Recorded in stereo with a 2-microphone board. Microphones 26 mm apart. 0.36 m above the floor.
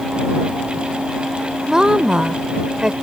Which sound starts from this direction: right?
A woman speaking, at 1.7 s.